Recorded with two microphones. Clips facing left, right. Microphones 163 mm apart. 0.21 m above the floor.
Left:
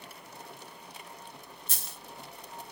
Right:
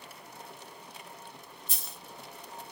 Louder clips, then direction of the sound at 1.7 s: Even; 70° left (ahead or behind).